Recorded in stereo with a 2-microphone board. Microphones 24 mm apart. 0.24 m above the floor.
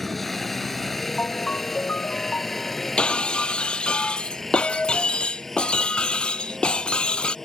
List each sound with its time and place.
0.0 s a helicopter: 10° left (ahead or behind); by 7.5 s 15° left (ahead or behind)
1.2 s a ringtone: 70° left (ahead or behind)
3.0 s breaking glass: 50° left (ahead or behind)